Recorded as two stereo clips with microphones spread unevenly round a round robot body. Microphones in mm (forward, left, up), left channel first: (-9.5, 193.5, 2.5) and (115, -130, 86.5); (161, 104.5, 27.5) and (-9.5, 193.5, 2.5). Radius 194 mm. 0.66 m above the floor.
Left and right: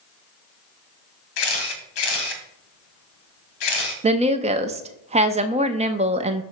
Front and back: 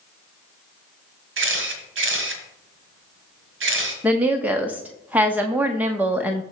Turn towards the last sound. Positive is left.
turn(degrees=-150)